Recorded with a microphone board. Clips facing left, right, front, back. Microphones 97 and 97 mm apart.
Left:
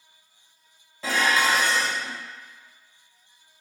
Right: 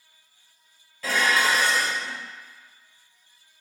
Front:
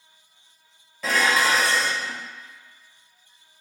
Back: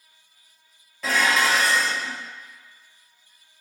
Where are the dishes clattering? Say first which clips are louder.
Even, even; 85° left, 0.8 m.